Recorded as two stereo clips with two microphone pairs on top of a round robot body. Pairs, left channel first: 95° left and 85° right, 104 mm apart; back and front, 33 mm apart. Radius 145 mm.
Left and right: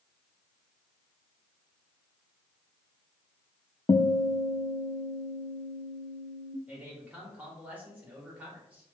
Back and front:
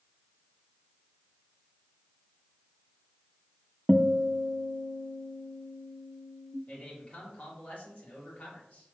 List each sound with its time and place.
3.9 s a guitar: 80° left, 0.5 m
6.7 s a man speaking: 160° right, 2.5 m